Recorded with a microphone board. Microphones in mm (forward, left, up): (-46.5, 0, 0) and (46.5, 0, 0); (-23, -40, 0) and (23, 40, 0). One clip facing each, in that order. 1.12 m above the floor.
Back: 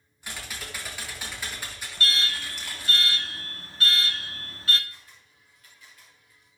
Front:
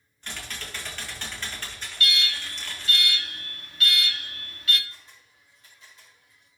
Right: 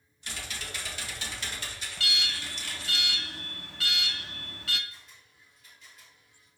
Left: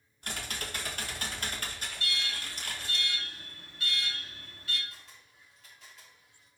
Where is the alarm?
125° right, 0.6 m.